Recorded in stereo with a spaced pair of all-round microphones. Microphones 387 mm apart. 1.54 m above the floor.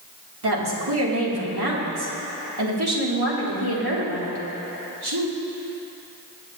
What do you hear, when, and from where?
0.4 s a woman speaking: 75° right (ahead or behind), 2 m